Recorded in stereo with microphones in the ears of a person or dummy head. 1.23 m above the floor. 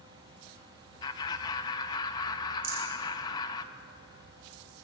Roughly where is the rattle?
Right.